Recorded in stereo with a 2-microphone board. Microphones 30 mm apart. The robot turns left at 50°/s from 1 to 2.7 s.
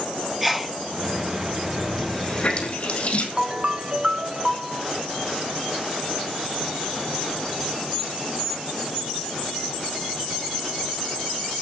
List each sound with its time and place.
0.4 s a sneeze: 5° right (ahead or behind), 1.6 m
2.0 s a running tap: 10° left (ahead or behind), 4 m; by 3.3 s 45° left (ahead or behind), 4 m
3.4 s a ringtone: 30° right (ahead or behind), 0.8 m